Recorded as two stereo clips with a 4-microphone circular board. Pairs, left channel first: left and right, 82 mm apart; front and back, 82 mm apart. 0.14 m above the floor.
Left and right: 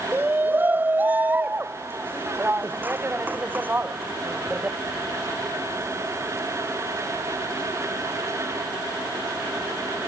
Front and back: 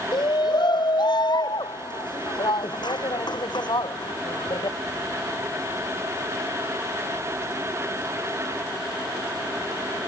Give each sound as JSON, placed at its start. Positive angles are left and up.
{"t": 0.1, "sound": "a shout", "azimuth_deg": -25}